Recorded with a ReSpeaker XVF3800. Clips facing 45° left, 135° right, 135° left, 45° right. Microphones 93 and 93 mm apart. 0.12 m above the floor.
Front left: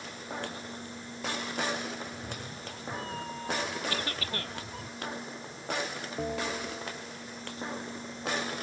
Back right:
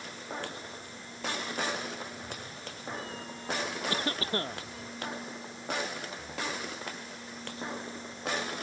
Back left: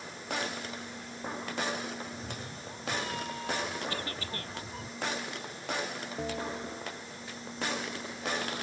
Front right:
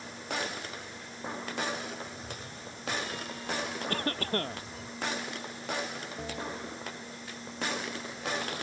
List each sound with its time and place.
2.1 s a cat meowing: 90° left; by 4.9 s 85° left
3.9 s a cough: 80° right
6.2 s a bell: 65° left